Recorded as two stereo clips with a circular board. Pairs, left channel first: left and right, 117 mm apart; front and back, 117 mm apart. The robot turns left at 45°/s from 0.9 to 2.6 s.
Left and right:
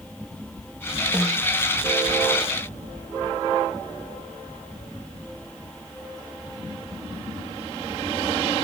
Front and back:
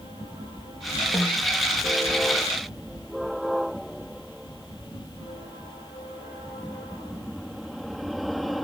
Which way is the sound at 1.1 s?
50° left.